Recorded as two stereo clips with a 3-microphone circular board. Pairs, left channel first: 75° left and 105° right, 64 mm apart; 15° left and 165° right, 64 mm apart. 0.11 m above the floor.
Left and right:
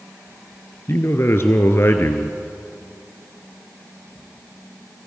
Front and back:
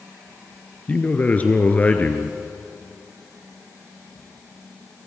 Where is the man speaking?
65° left, 1.4 m.